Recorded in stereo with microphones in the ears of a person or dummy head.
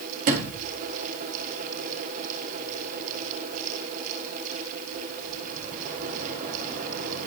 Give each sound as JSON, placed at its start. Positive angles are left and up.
{"t": 0.3, "sound": "a sliding door", "side_deg": -45, "distance_m": 1.9}